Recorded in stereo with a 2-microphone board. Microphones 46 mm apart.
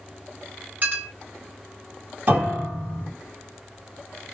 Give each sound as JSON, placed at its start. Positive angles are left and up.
{"t": 0.8, "sound": "a clink", "side_deg": -35, "distance_m": 1.7}
{"t": 2.3, "sound": "a piano", "side_deg": -30, "distance_m": 2.0}